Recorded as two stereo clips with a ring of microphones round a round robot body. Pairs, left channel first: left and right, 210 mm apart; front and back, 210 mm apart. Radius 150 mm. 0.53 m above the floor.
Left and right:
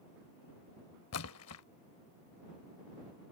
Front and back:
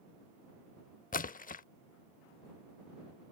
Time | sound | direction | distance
1.1 | a splash | 55° left | ?